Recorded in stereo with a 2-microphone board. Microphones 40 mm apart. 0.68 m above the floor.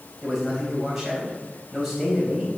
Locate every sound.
0.2 s a man speaking: 5° right (ahead or behind), 3.5 m